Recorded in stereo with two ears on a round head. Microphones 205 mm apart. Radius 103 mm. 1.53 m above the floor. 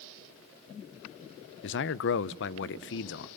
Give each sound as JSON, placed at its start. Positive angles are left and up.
{"t": 1.6, "sound": "a man speaking", "side_deg": 50, "distance_m": 0.8}